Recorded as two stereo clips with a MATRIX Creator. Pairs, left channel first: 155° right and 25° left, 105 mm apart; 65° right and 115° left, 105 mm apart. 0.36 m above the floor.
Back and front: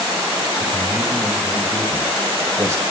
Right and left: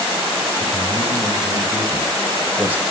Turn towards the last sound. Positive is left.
turn(degrees=55)